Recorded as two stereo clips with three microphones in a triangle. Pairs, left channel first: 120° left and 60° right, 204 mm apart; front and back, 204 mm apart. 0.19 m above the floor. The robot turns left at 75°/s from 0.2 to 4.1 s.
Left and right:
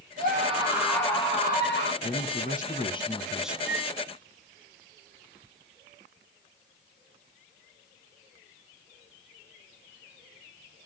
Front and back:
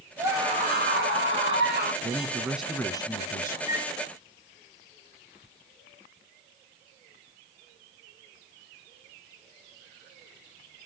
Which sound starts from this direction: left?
A flute, at 3.7 s.